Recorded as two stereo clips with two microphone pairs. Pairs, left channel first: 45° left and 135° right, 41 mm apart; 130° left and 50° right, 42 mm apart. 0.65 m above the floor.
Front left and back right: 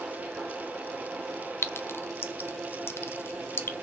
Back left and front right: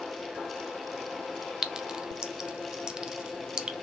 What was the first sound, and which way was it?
A clink, 20° left.